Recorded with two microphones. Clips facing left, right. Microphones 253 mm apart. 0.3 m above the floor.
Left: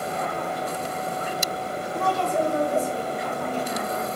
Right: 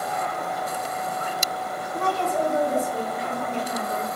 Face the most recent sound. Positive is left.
turn(degrees=20)  # may be behind; listen again after turning